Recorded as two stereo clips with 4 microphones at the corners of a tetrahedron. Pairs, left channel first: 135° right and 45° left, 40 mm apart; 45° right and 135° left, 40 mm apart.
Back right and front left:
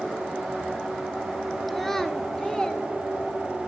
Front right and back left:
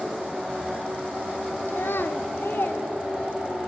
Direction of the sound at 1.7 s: 45° right.